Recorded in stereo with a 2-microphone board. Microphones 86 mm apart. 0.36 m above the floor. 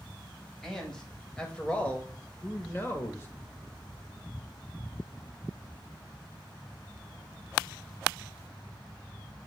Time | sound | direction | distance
0.6 | a man speaking | 5° left (ahead or behind) | 1.9 m